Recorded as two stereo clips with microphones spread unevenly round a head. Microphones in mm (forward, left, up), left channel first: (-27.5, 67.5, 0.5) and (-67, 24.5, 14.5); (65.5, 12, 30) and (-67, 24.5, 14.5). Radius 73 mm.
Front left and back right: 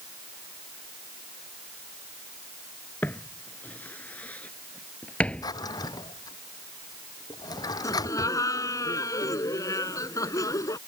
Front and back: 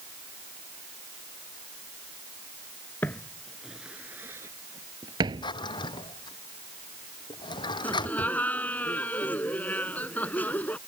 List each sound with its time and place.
3.0 s footsteps: straight ahead; by 5.5 s 125° left
5.4 s a drawer: 50° left
7.8 s laughter: 75° left